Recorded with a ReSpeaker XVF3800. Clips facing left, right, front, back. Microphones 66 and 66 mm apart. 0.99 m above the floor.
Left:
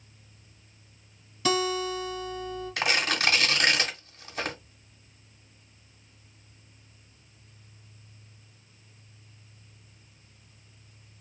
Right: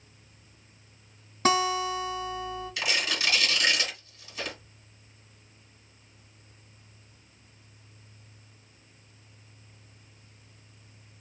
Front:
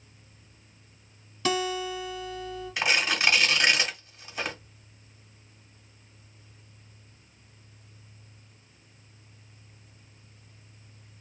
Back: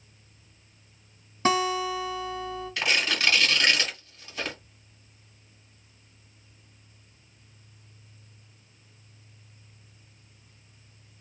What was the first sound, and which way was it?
A guitar, 130° right.